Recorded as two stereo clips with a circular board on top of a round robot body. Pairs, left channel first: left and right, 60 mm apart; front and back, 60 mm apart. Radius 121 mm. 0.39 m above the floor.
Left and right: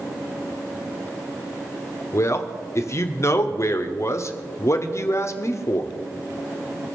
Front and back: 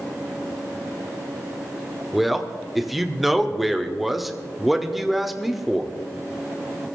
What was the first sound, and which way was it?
A man speaking, 90° left.